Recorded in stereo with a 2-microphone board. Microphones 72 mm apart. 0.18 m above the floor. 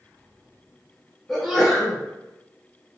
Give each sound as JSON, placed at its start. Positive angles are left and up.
{"t": 1.3, "sound": "a sneeze", "side_deg": 0, "distance_m": 1.3}